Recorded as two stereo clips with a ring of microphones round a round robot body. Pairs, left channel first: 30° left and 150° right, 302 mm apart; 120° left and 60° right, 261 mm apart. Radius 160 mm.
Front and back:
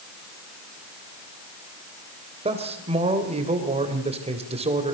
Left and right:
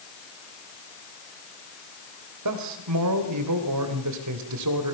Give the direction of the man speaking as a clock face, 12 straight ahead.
3 o'clock.